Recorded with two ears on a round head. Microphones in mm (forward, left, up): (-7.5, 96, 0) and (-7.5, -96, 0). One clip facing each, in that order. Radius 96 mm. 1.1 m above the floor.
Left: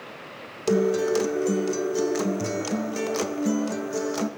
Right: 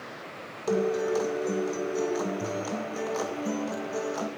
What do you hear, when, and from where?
0.7 s a guitar: 35° left (ahead or behind), 0.5 m